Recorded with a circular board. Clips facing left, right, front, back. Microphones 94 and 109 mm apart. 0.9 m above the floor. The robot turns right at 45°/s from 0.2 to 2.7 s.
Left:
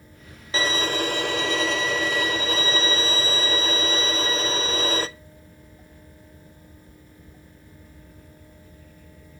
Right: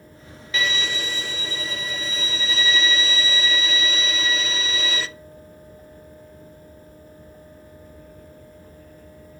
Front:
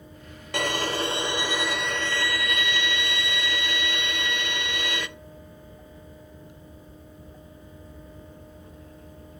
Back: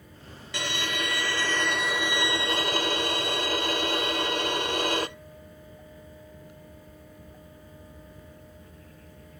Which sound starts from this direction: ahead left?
A violin, at 0.5 s.